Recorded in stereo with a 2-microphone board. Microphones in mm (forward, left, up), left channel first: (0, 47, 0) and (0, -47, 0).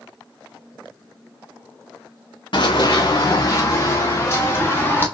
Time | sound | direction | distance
2.5 | running footsteps | 55° left (ahead or behind) | 1.1 m